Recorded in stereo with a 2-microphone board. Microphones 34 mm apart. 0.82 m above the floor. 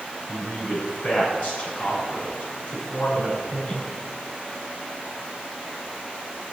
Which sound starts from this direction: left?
A man speaking, at 0.3 s.